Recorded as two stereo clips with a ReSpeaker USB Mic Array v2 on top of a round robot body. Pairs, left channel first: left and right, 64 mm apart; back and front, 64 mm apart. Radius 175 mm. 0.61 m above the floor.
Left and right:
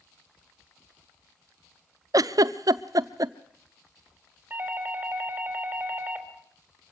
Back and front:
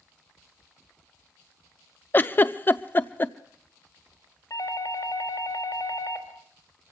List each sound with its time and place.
2.1 s a giggle: 120° right, 0.7 m
4.5 s a doorbell: 150° right, 4 m